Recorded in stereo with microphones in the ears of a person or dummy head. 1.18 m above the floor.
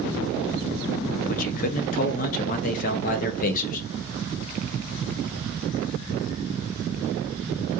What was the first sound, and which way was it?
A man speaking, 40° left (ahead or behind).